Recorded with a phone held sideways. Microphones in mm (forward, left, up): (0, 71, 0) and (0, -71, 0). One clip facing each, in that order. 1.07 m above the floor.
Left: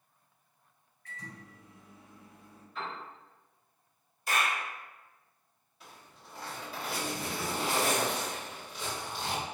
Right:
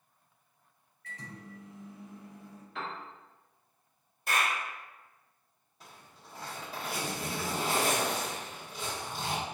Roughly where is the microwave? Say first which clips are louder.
Right 2 dB; right.